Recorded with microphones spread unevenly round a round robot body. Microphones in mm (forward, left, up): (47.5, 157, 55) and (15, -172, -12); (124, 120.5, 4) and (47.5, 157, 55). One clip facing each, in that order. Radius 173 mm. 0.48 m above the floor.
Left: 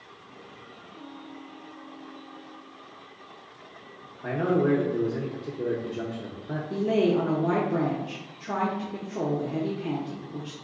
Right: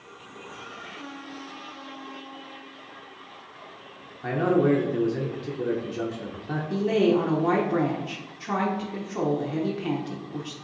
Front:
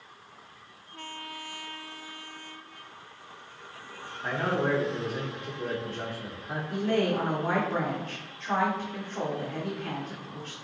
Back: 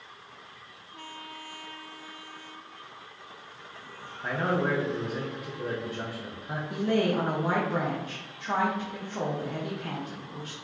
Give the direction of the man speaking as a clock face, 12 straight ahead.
3 o'clock.